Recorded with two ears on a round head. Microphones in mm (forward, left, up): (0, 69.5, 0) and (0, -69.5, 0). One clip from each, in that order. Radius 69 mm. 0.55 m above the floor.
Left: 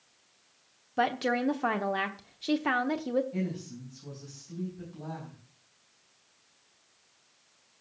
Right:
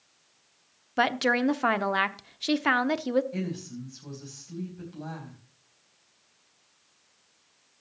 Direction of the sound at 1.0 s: 40° right (ahead or behind).